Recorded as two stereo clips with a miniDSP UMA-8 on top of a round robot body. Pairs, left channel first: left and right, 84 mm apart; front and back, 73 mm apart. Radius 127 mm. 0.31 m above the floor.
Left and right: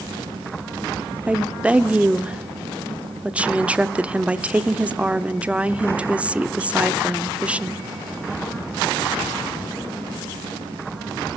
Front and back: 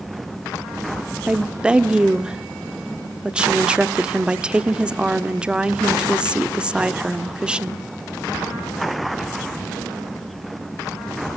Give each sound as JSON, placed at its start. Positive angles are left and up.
{"t": 1.3, "sound": "a woman speaking", "azimuth_deg": -130, "distance_m": 1.1}